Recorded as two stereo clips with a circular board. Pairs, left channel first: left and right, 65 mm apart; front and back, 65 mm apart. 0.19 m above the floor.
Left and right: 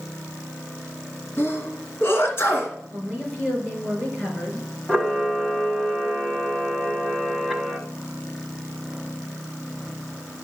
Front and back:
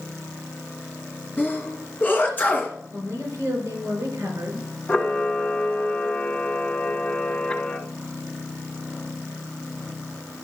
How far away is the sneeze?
About 2.5 m.